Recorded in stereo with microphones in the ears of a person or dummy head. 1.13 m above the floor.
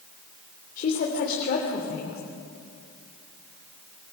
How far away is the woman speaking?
About 3 m.